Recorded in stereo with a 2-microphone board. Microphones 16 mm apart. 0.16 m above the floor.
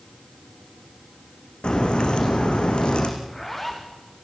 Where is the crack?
75° left (ahead or behind), 3.5 m.